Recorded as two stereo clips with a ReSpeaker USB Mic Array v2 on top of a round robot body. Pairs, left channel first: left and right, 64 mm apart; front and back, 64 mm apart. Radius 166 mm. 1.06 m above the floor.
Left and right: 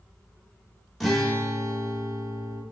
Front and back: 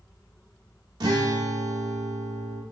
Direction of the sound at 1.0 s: Straight behind.